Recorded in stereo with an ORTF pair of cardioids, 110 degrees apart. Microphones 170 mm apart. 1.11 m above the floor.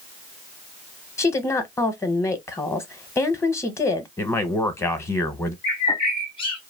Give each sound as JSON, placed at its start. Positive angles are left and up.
{"t": 1.2, "sound": "a woman speaking", "azimuth_deg": 15, "distance_m": 0.8}
{"t": 4.2, "sound": "a man speaking", "azimuth_deg": 15, "distance_m": 0.9}
{"t": 5.6, "sound": "a bird", "azimuth_deg": 30, "distance_m": 0.9}